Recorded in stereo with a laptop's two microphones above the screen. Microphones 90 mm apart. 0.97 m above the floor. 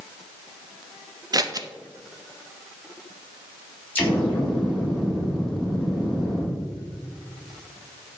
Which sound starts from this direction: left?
An explosion, at 4.0 s.